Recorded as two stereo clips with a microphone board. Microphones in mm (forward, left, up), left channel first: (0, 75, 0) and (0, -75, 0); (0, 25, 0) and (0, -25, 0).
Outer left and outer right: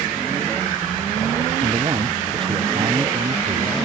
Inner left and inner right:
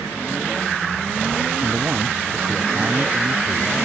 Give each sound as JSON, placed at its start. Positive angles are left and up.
{"t": 1.6, "sound": "a man speaking", "side_deg": -35}